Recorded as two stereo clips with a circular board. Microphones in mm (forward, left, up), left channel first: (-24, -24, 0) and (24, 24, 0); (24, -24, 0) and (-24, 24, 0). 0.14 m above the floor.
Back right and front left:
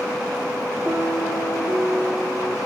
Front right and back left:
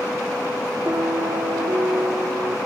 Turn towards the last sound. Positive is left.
turn(degrees=100)